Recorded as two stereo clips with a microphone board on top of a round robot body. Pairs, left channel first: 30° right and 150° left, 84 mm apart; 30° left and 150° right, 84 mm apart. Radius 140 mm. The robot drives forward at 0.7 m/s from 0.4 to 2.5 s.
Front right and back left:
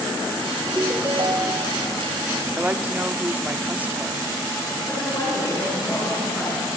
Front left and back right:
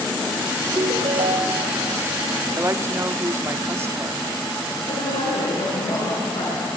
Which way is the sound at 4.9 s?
30° left.